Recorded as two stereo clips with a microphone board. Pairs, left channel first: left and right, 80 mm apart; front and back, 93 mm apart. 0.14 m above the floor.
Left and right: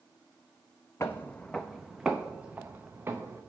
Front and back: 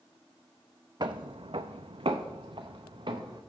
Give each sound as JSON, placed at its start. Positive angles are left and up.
{"t": 1.0, "sound": "footsteps", "azimuth_deg": 145, "distance_m": 0.5}